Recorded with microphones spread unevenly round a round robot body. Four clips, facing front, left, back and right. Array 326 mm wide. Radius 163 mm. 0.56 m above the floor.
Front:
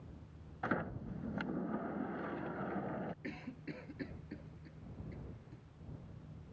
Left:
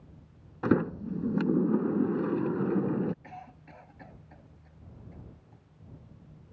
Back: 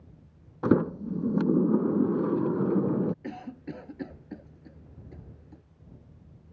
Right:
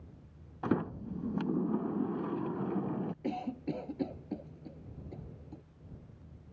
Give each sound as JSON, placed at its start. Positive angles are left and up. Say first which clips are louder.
{"t": 0.6, "sound": "a sliding door", "louder": "left 6 dB, back 15 dB", "azimuth_deg": 155}
{"t": 3.2, "sound": "a cough", "louder": "right 11 dB, back 8 dB", "azimuth_deg": -120}